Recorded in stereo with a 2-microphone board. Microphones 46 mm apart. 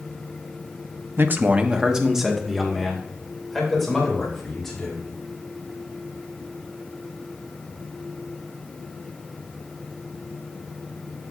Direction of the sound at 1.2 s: 55° right (ahead or behind).